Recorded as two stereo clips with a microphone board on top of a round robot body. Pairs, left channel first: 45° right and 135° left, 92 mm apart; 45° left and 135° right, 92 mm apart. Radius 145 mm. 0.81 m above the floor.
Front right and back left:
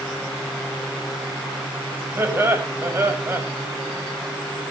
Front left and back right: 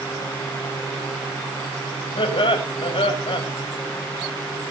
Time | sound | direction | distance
2.2 | laughter | 70° left | 5.5 m